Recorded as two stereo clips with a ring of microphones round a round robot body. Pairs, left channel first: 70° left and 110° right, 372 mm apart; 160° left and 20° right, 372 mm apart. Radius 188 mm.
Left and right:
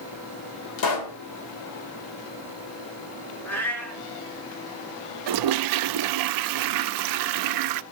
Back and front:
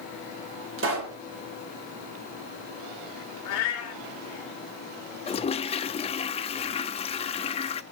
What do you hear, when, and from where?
0.8 s a pop: 35° left, 3 m
3.5 s a cat meowing: 150° left, 3.5 m
5.3 s a toilet flushing: 130° right, 0.6 m